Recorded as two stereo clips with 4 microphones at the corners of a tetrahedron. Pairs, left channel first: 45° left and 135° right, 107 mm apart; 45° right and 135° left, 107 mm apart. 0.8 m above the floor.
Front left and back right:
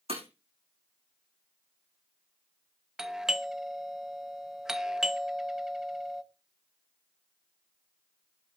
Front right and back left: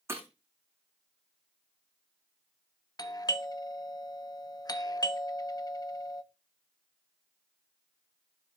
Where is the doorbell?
50° right, 1.0 m.